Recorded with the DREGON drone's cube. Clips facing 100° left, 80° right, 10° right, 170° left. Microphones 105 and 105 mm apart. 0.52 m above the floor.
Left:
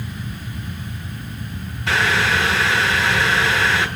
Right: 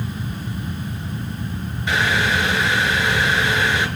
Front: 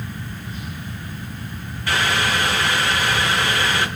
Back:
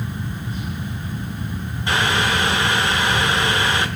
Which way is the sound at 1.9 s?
100° left.